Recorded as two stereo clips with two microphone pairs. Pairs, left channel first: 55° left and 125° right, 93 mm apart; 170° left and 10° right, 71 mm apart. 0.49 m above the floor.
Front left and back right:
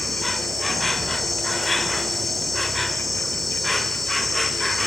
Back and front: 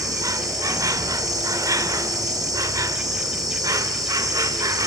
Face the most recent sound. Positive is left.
turn(degrees=-35)